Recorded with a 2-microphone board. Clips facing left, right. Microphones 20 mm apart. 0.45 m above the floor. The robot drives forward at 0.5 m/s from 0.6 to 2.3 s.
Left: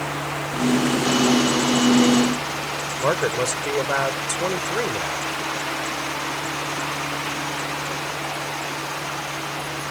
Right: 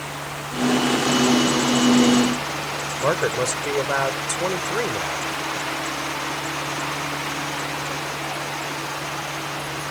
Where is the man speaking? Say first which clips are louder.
Even; 10° right (ahead or behind).